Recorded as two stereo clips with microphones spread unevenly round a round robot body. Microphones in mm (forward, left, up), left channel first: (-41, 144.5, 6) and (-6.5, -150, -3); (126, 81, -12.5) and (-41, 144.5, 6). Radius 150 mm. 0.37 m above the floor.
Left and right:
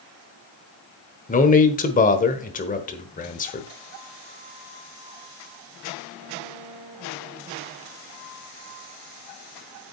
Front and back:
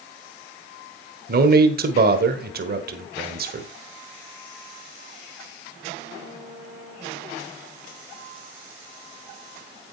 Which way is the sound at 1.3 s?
155° left.